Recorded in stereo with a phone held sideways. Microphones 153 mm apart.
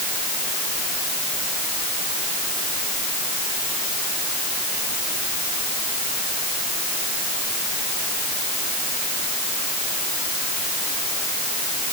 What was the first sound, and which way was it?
Only background noise.